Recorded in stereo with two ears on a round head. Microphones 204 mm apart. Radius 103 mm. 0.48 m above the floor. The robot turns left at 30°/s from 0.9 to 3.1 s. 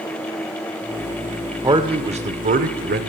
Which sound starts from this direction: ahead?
A man speaking, at 1.6 s.